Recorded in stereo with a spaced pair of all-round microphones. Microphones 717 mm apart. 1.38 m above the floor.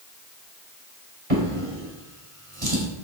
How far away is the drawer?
About 3 m.